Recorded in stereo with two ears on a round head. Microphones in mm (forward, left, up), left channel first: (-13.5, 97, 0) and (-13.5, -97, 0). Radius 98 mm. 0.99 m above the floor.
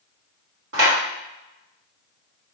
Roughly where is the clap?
Right.